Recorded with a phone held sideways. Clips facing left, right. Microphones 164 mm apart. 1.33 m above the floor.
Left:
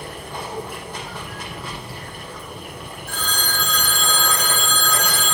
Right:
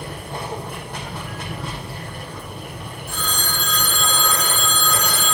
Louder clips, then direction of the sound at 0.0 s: Right 1 dB; 60° right (ahead or behind).